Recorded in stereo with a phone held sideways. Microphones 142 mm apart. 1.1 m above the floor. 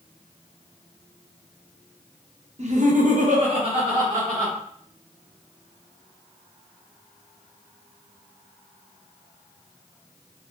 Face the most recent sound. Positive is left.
turn(degrees=-20)  # may be behind; listen again after turning